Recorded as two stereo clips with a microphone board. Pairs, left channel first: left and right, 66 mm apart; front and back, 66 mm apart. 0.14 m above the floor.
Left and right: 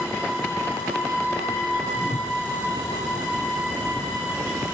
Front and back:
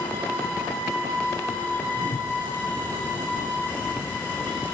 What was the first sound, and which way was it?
A whoosh, 65° left.